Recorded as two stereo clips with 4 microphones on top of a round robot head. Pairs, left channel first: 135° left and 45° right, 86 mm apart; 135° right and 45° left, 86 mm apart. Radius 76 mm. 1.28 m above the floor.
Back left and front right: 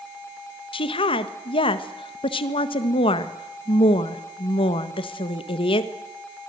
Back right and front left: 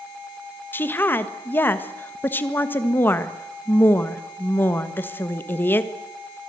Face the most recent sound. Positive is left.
turn(degrees=160)